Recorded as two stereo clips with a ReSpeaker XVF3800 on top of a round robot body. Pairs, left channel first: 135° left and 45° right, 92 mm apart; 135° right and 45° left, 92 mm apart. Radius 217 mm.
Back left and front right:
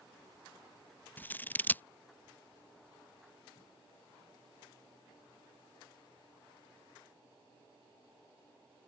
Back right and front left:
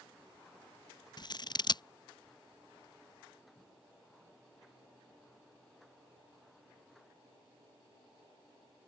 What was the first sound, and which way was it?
Scissors, 160° right.